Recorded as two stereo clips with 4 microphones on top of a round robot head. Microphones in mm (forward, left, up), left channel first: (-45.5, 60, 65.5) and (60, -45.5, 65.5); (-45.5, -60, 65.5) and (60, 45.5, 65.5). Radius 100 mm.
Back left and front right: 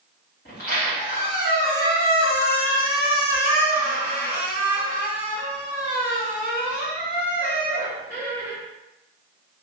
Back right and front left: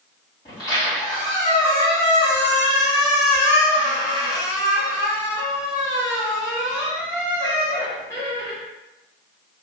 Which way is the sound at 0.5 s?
160° left.